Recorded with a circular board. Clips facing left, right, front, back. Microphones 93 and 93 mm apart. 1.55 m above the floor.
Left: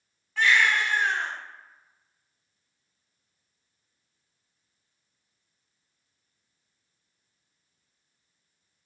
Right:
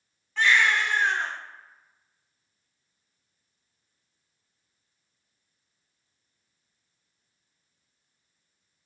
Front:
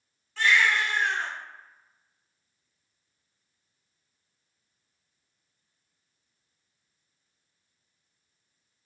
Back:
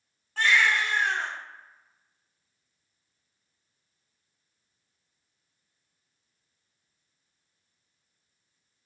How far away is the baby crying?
About 1.5 m.